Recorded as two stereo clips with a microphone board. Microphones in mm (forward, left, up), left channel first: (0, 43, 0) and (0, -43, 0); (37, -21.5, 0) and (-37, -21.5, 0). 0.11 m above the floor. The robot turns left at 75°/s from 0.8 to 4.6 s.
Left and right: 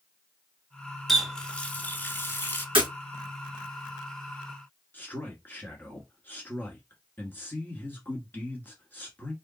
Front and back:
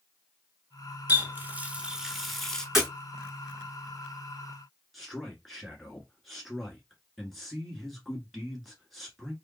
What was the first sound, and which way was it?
A running tap, straight behind.